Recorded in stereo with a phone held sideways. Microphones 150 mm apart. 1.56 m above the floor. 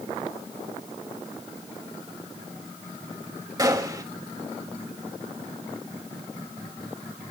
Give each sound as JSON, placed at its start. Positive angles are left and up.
{"t": 3.6, "sound": "a gunshot", "side_deg": -25, "distance_m": 2.5}